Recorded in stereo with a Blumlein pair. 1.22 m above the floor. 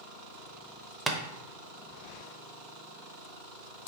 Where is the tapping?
10° right, 0.5 m.